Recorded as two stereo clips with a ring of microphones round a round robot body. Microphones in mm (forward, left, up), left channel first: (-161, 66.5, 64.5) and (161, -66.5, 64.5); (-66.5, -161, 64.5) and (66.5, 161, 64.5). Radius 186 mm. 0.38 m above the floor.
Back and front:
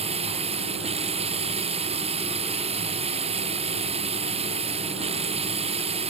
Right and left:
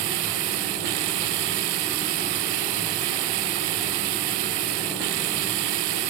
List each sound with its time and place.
0.0 s running water: 50° left